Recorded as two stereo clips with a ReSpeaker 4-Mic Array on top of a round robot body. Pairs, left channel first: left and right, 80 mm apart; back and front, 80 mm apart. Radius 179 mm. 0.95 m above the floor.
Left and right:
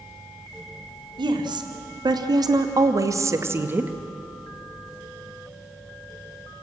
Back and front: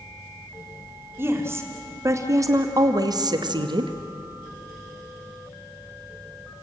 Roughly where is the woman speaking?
Ahead right.